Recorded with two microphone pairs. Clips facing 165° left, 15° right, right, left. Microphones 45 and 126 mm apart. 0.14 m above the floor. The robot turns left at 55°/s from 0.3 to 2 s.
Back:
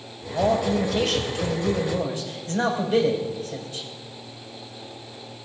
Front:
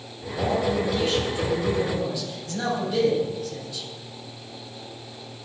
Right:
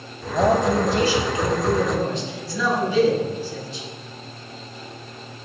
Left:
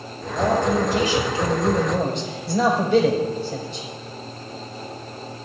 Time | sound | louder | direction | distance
0.3 | a man speaking | back 2 dB, right 2 dB | 155° right | 6 m